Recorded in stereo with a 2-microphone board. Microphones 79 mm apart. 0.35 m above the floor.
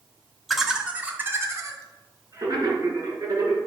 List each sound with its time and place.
0.5 s laughter: centre (ahead or behind), 1.8 m; by 3.6 s 55° right (ahead or behind), 5 m